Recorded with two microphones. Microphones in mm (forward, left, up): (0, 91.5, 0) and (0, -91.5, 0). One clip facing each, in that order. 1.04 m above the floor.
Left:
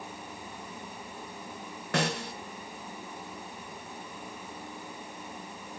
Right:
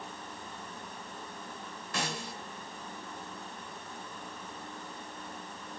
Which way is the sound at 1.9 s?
65° left (ahead or behind).